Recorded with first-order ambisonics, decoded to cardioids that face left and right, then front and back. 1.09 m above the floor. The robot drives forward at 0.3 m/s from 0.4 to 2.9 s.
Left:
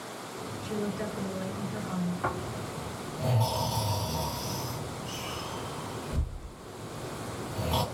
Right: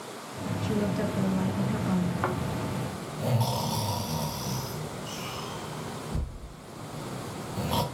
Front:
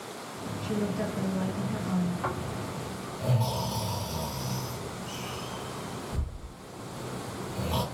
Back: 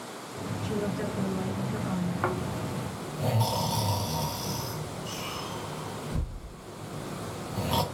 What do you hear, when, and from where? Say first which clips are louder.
0.6 s a woman speaking: right 4 dB, even; 80° right, 1.5 m; by 2.1 s 95° right, 1.4 m
2.2 s snoring: even, back 2 dB; 140° right, 0.9 m; by 7.8 s 150° right, 1.0 m